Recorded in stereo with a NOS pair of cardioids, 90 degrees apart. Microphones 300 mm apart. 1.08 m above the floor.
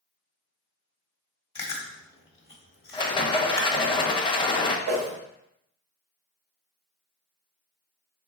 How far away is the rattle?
About 0.6 m.